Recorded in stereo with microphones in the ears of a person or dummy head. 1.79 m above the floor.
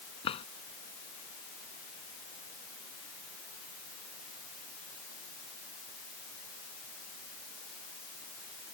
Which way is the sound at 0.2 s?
40° left (ahead or behind).